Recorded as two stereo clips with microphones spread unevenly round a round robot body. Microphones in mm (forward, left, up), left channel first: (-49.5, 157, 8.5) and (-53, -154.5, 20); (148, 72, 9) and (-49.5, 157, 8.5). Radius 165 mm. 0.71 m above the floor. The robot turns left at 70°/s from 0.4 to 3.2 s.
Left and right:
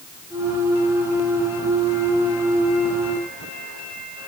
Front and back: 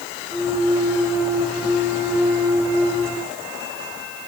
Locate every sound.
Only background noise.